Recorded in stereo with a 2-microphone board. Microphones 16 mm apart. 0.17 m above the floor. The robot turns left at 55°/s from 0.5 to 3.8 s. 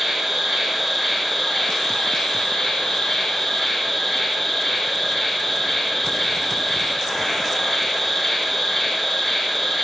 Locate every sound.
0.0 s an insect: 150° right, 1.2 m; by 9.8 s 30° left, 1.2 m